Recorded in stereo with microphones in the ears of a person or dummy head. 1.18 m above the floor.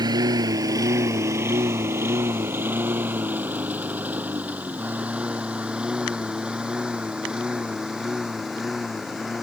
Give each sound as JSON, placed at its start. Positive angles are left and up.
{"t": 0.0, "sound": "a lawn mower", "side_deg": -30}